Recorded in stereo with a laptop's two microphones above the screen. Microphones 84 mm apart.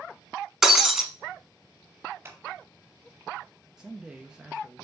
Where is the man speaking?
10° right (ahead or behind), 0.9 m.